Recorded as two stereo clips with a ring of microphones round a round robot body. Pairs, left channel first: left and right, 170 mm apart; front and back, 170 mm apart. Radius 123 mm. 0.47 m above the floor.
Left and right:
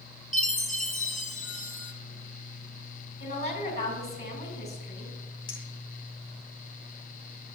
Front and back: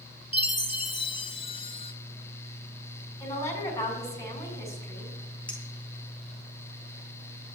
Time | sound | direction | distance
0.3 | a chime | 55° left | 1.5 m
3.2 | a woman speaking | 70° left | 5 m
5.5 | a clink | 85° left | 4.5 m